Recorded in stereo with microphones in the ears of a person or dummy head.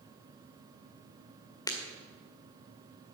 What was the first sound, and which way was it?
Breaking glass, 20° left (ahead or behind).